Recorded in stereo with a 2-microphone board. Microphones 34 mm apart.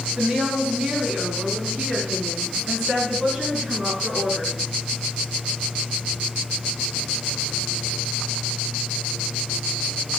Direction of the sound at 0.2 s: 15° right (ahead or behind).